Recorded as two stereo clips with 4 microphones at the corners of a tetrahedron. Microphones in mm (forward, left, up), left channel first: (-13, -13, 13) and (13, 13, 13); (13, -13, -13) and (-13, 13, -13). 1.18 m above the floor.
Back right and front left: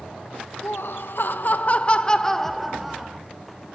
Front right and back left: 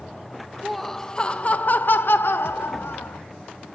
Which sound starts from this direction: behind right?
Laughter, at 0.6 s.